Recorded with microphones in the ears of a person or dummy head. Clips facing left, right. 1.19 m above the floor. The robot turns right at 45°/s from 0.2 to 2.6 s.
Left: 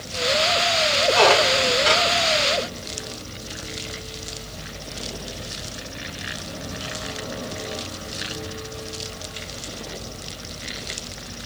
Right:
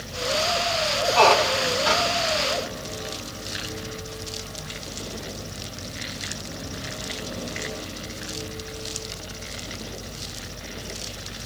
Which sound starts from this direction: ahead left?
A squeak, at 1.1 s.